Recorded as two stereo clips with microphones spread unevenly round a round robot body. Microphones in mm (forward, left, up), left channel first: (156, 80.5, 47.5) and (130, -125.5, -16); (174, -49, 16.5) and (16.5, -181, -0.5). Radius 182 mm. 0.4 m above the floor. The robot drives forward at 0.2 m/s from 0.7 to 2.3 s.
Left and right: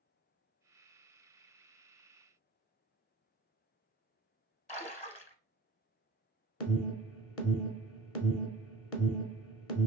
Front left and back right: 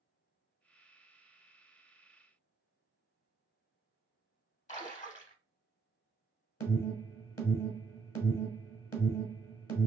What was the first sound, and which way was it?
A splash, 20° left.